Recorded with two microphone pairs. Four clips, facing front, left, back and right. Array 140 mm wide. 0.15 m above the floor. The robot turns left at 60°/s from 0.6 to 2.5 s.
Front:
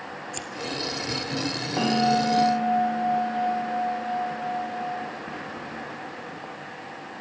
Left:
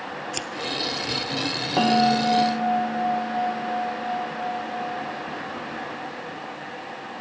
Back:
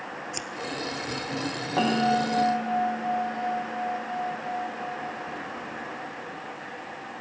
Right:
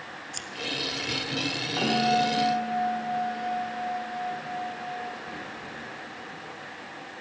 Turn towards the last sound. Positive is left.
turn(degrees=50)